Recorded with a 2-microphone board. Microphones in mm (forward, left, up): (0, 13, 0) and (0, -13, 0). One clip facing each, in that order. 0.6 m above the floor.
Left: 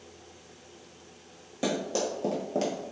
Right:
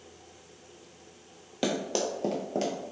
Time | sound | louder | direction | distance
1.6 | running footsteps | even | 50° right (ahead or behind) | 0.9 m